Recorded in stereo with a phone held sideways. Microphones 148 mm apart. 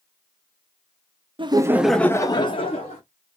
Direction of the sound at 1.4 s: 35° right (ahead or behind).